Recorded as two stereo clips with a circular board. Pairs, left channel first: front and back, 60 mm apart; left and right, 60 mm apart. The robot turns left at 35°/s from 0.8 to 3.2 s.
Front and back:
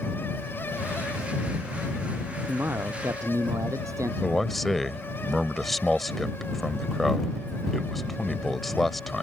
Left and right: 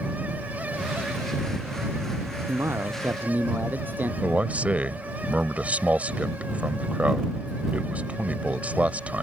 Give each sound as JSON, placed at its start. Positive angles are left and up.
{"t": 2.5, "sound": "a man speaking", "azimuth_deg": -125}
{"t": 4.2, "sound": "a man speaking", "azimuth_deg": -85}